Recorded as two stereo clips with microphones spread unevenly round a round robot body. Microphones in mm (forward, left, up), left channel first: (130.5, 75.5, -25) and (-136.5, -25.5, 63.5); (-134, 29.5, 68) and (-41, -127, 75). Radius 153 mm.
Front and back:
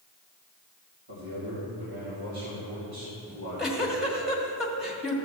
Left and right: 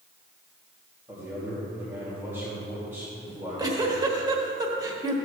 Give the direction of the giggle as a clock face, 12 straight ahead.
1 o'clock.